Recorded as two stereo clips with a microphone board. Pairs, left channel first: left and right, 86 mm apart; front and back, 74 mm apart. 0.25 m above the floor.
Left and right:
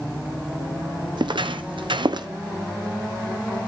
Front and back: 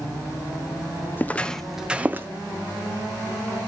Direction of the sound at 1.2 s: 65° right.